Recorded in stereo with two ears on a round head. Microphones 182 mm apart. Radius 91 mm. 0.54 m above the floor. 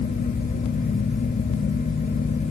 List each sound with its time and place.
Only background noise.